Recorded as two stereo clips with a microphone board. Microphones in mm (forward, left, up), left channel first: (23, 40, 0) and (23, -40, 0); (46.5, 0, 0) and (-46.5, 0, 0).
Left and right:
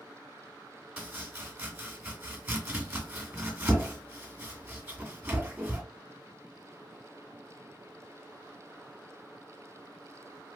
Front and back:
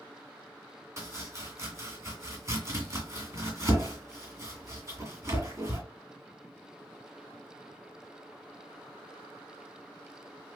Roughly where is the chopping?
Behind right.